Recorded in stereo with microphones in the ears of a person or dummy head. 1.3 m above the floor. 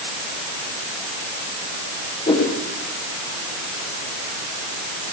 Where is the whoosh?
25° left (ahead or behind), 9.5 m.